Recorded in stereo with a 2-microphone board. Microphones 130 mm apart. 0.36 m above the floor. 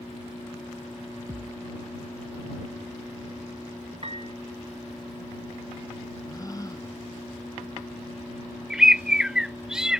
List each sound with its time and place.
1.3 s a thud: 25° right (ahead or behind)
4.0 s a piano: 50° right (ahead or behind)
6.2 s a gasp: 25° left (ahead or behind)
8.7 s a bird: 5° right (ahead or behind)